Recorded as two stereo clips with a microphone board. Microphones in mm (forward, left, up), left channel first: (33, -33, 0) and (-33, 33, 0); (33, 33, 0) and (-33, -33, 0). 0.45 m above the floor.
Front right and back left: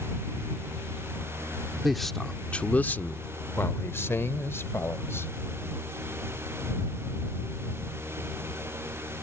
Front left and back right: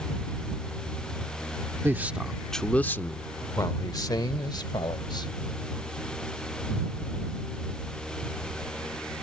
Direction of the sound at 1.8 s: 140° right.